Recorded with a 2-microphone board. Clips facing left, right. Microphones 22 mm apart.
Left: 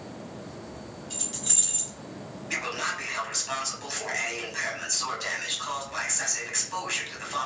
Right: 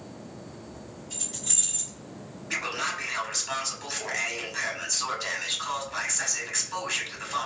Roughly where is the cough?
No cough in this recording.